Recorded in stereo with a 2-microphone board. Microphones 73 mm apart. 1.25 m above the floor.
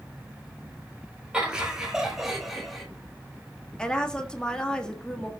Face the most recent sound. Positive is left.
turn(degrees=10)  # may be behind; listen again after turning